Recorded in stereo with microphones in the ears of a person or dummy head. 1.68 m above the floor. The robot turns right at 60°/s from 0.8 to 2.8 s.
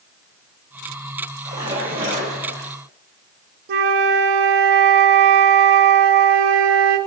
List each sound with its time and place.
1.4 s a splash: 165° right, 2.5 m; by 2.7 s 90° right, 2.5 m
3.7 s a flute: 55° right (ahead or behind), 0.5 m